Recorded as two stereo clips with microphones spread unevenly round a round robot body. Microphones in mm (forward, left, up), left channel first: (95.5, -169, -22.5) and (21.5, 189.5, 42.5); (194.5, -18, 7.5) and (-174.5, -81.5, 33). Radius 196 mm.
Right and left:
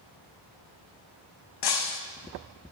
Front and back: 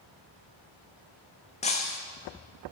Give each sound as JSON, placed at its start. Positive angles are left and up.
{"t": 1.6, "sound": "breaking glass", "azimuth_deg": -65, "distance_m": 1.8}